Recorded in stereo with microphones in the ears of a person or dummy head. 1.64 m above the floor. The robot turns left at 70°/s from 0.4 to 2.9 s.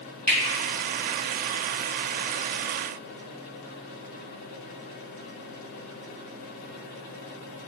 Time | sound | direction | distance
0.3 | a finger snap | 15° left (ahead or behind) | 1.7 m